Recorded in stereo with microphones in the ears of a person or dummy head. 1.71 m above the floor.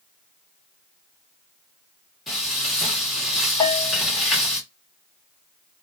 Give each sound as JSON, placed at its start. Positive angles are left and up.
{"t": 2.3, "sound": "frying", "side_deg": 0, "distance_m": 1.4}
{"t": 3.6, "sound": "a bell", "side_deg": 20, "distance_m": 0.6}